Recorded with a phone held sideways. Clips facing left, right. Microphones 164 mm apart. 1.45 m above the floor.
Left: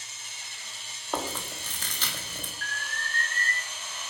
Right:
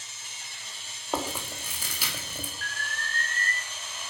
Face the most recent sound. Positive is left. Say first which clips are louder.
# even
turn(degrees=40)  # may be behind; listen again after turning